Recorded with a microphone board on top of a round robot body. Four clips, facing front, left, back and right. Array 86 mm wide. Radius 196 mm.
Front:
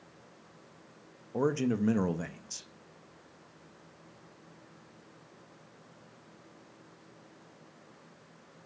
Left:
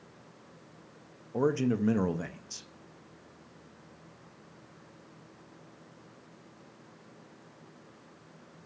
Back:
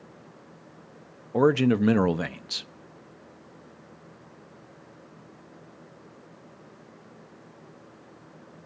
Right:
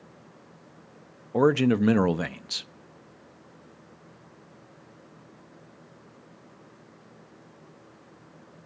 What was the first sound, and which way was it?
A man speaking, 130° right.